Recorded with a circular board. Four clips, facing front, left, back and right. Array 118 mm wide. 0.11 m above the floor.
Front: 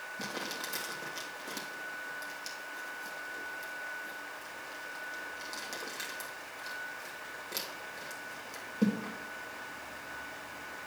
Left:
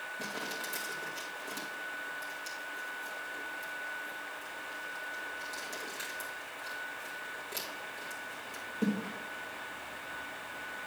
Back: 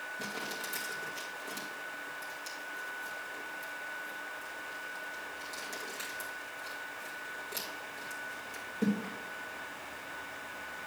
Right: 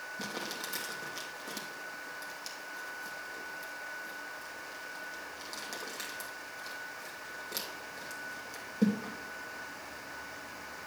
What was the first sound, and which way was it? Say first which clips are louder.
Crumpling: even, front 2 dB; 45° right.